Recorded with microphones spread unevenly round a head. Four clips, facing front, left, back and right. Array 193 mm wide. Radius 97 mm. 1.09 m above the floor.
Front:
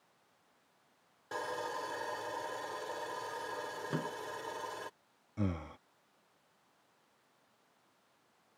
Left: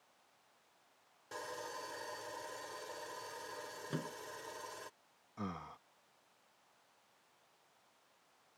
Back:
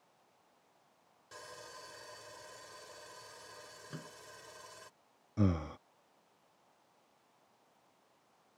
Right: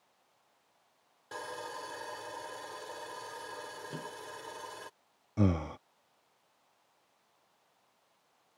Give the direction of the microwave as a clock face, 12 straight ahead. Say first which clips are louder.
Left 3 dB, front 11 dB; 12 o'clock.